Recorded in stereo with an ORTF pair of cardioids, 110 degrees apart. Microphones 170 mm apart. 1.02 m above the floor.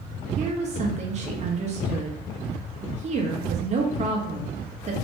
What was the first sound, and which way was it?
A woman speaking, 45° right.